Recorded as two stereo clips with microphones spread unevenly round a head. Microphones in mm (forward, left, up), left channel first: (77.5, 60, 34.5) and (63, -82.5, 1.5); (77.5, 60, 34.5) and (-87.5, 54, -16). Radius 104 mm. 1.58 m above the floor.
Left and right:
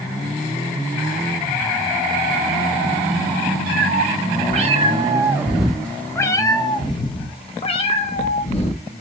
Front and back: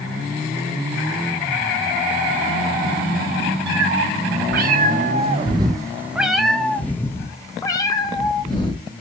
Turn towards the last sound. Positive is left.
turn(degrees=55)